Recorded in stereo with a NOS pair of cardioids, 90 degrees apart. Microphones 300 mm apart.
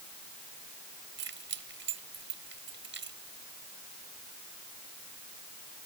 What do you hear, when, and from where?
1.2 s keys jangling: 40° right